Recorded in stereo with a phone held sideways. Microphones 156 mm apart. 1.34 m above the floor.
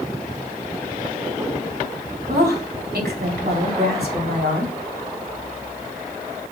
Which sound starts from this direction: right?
A woman speaking, at 2.3 s.